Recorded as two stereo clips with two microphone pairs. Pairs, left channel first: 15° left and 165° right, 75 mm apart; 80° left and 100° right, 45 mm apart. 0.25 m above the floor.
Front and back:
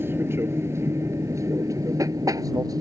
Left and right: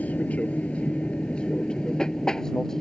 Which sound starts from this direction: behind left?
An aircraft, at 0.0 s.